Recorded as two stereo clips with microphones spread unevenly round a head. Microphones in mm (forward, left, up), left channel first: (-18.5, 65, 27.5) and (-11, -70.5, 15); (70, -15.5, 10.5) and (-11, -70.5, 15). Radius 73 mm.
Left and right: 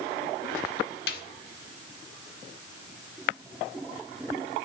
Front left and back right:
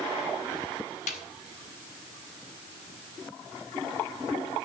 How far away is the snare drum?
About 1.4 m.